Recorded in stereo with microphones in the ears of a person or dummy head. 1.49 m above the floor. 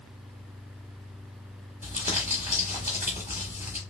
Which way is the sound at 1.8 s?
10° right (ahead or behind).